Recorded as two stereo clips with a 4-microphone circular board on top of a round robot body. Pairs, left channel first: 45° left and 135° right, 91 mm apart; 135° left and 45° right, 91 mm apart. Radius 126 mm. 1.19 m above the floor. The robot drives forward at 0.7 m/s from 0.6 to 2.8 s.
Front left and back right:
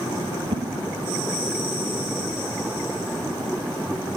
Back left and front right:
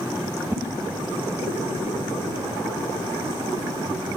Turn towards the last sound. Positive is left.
turn(degrees=-160)